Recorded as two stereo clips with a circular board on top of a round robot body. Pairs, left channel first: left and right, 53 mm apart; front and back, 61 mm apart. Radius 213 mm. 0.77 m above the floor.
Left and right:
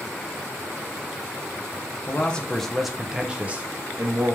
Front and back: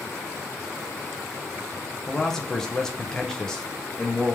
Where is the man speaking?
75° left, 1.1 m; by 4.4 s 80° right, 1.3 m.